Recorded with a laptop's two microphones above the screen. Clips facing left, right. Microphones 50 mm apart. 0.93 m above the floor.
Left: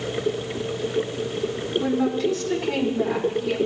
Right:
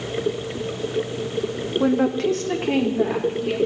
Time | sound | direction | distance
1.8 | a woman speaking | 55° right (ahead or behind) | 1.3 m